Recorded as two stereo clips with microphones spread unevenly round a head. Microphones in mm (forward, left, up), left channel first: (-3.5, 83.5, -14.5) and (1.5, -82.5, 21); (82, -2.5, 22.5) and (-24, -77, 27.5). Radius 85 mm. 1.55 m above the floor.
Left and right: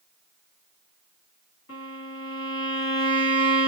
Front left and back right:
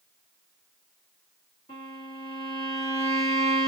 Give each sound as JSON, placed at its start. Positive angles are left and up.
{"t": 1.7, "sound": "a violin", "azimuth_deg": 100, "distance_m": 2.0}